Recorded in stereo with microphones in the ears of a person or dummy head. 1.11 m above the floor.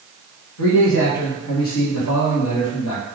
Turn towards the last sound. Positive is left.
turn(degrees=80)